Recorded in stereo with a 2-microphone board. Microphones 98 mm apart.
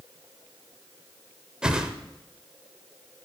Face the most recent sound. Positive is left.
turn(degrees=-10)  # may be behind; listen again after turning